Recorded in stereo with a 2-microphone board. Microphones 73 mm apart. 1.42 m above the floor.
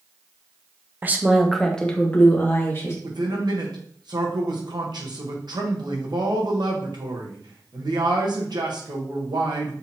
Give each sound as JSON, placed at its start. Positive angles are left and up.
{"t": 1.0, "sound": "a woman speaking", "side_deg": -30, "distance_m": 0.6}
{"t": 3.0, "sound": "a man speaking", "side_deg": -75, "distance_m": 1.1}